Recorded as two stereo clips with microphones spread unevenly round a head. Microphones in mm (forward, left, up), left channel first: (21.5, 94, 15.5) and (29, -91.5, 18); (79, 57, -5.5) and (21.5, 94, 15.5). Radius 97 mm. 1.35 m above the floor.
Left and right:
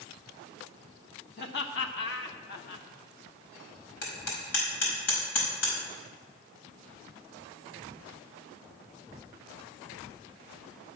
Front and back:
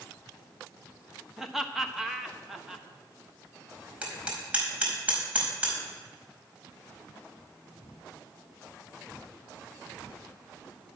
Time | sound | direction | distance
1.4 | laughter | 65° left | 1.6 m
4.0 | hammering | 80° left | 5 m